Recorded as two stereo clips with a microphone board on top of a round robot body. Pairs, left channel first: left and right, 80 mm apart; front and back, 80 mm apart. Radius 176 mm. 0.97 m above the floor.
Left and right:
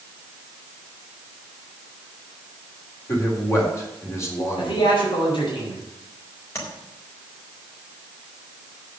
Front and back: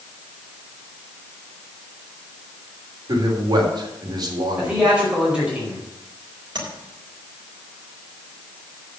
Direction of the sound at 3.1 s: 145° left.